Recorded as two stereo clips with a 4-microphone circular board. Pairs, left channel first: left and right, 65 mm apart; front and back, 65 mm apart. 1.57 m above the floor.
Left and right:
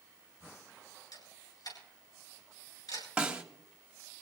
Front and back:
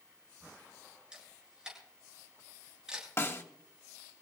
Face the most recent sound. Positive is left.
turn(degrees=-20)